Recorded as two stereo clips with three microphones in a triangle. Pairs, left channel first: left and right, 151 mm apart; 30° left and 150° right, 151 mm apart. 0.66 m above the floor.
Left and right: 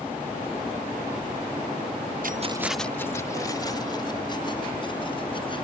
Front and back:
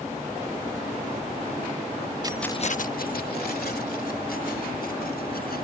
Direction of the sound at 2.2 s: 90° right.